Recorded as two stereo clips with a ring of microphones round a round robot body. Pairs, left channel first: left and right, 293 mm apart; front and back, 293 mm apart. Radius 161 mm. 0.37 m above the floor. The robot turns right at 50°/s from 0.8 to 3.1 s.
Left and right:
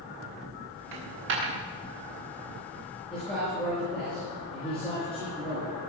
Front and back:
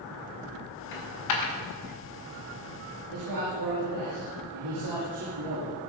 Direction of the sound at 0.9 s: 55° right.